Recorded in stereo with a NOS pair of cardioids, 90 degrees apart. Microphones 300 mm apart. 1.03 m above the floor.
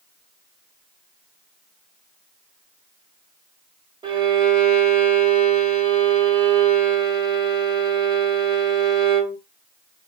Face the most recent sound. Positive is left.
turn(degrees=-15)